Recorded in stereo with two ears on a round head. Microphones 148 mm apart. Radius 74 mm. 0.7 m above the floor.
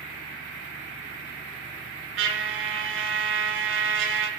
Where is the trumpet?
85° right, 3.5 m.